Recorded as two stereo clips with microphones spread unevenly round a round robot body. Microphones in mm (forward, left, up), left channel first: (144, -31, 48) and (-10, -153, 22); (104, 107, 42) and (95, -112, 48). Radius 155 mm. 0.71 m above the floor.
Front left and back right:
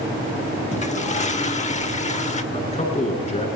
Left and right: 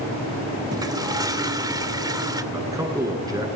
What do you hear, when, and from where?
0.7 s a toilet flushing: 20° right, 2.5 m
2.5 s a man speaking: 15° right, 10 m